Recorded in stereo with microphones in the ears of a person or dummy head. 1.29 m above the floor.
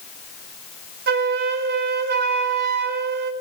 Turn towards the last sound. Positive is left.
turn(degrees=-45)  # may be behind; listen again after turning